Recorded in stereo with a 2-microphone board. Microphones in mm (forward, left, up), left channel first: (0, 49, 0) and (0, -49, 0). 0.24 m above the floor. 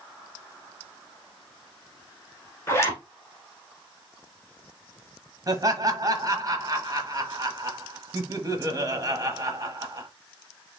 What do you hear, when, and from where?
2.7 s a zipper: 25° left (ahead or behind), 1.6 m
5.5 s laughter: 35° right (ahead or behind), 1.1 m